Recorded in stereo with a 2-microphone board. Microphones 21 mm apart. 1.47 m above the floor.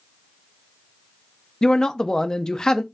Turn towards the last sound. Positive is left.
turn(degrees=35)  # may be behind; listen again after turning